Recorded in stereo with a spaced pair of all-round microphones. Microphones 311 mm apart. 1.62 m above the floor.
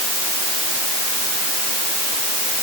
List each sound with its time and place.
Only background noise.